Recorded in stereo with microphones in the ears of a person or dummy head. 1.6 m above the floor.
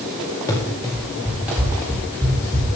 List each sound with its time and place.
0.5 s running footsteps: 15° left (ahead or behind), 2.5 m; by 2.8 s 20° right (ahead or behind), 3.5 m